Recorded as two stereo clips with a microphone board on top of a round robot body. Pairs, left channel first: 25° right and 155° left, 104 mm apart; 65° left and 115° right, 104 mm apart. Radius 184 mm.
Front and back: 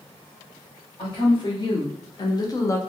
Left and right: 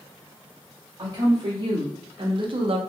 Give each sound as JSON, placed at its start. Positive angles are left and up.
{"t": 1.0, "sound": "a woman speaking", "azimuth_deg": -65, "distance_m": 1.6}